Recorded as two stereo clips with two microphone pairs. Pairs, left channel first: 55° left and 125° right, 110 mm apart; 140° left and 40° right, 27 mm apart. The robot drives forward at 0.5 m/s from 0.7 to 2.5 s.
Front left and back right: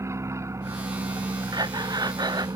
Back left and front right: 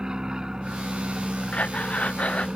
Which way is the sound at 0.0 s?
85° right.